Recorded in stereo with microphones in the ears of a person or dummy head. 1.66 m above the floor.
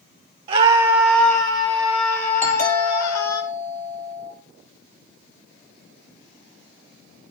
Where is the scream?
35° right (ahead or behind), 1.1 m; by 3.4 s 55° left (ahead or behind), 3 m.